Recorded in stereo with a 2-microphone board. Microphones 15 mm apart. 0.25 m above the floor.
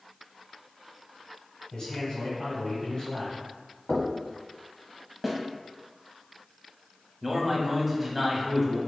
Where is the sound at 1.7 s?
40° left (ahead or behind), 1.9 m.